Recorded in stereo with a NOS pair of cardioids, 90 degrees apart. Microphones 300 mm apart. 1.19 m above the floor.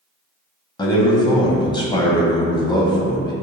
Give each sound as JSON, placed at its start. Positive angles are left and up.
{"t": 0.8, "sound": "a man speaking", "azimuth_deg": 15, "distance_m": 0.6}